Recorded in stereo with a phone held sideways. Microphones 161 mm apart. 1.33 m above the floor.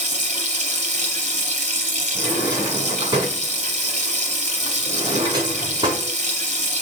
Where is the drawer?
30° right (ahead or behind), 5.5 m.